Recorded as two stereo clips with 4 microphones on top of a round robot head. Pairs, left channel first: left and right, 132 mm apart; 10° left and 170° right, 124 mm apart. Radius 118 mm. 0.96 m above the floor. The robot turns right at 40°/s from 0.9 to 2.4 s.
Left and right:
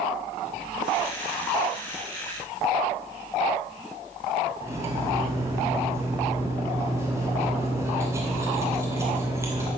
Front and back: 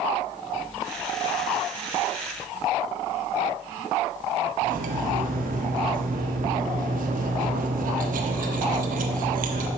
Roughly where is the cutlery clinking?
Behind.